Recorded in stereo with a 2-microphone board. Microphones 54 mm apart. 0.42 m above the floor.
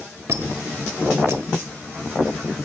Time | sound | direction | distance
0.3 | a squeak | 55° right (ahead or behind) | 1.1 m